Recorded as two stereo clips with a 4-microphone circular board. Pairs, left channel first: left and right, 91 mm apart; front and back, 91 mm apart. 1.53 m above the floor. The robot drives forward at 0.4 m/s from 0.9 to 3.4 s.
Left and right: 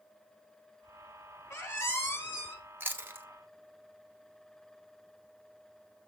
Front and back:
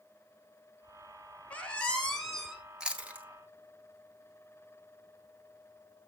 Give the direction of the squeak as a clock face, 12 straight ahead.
10 o'clock.